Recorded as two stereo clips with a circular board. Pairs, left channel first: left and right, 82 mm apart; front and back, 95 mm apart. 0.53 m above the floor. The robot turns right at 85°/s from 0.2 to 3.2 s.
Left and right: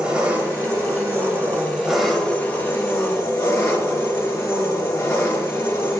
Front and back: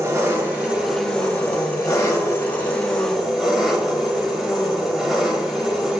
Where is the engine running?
155° right, 0.8 m; by 6.0 s 100° left, 0.8 m.